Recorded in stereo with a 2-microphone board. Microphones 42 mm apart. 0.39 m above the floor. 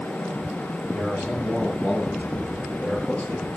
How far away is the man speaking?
About 9 m.